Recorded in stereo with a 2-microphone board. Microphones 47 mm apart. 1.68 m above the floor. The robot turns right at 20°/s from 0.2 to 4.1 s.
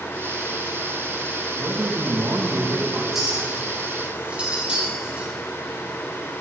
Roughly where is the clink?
Centre.